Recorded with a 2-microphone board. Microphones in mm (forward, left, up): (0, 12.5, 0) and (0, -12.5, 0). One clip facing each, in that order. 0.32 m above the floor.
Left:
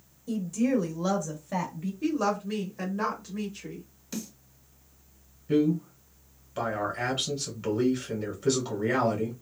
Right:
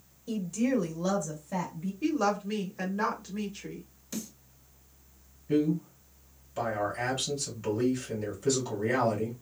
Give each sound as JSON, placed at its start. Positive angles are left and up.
{"t": 0.3, "sound": "a woman speaking", "side_deg": -20, "distance_m": 1.0}
{"t": 2.0, "sound": "a woman speaking", "side_deg": -10, "distance_m": 0.9}
{"t": 4.1, "sound": "a snare drum", "side_deg": 25, "distance_m": 2.0}
{"t": 5.5, "sound": "a man speaking", "side_deg": 30, "distance_m": 1.8}